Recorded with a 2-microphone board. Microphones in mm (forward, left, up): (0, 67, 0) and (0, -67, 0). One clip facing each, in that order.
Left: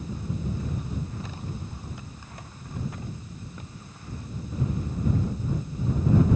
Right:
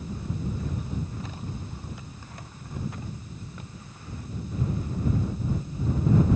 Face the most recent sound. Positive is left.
No sound to turn to.